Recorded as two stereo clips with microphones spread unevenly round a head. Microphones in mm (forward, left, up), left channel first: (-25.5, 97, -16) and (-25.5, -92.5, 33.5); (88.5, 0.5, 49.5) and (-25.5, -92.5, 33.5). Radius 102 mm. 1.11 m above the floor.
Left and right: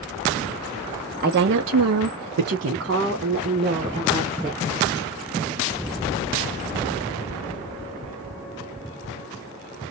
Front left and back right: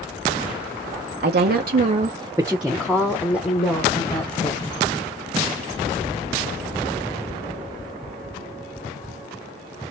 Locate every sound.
1.2 s a woman speaking: 135° right, 0.6 m; by 4.7 s 20° right, 1.6 m